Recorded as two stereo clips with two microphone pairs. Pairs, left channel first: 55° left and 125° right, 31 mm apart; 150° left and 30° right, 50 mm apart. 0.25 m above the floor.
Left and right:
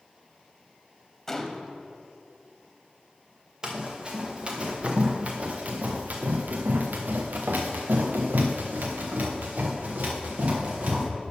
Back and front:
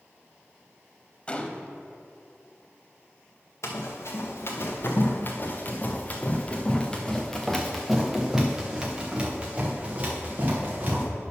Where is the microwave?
I don't hear a microwave.